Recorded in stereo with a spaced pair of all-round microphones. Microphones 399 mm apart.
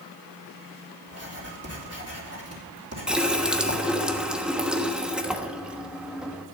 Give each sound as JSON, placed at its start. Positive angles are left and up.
{"t": 1.1, "sound": "writing", "side_deg": -35, "distance_m": 3.0}
{"t": 3.1, "sound": "a running tap", "side_deg": 0, "distance_m": 1.1}